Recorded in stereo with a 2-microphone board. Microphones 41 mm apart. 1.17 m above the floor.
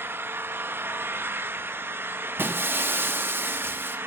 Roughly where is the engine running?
Right.